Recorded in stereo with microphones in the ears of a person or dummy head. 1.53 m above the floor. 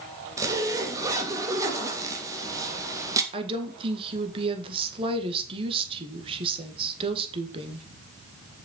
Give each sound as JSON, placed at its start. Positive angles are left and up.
{"t": 0.4, "sound": "a zipper", "side_deg": -15, "distance_m": 1.7}
{"t": 3.3, "sound": "a woman speaking", "side_deg": -30, "distance_m": 1.7}